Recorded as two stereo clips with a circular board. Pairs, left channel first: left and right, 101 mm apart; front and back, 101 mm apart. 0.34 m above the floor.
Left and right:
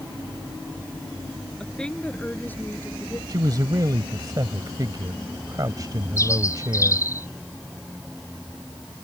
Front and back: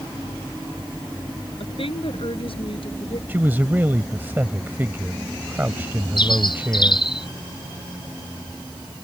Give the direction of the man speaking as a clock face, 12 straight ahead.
4 o'clock.